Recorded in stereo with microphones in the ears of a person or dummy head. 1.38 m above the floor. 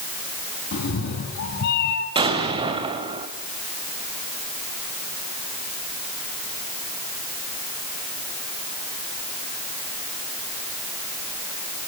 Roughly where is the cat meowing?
Left.